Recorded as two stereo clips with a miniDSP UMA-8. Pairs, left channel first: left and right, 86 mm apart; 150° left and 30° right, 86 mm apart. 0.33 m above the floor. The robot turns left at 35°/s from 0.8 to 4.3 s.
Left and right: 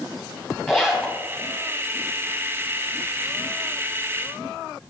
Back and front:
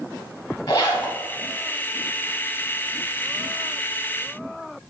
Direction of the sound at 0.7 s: Straight behind.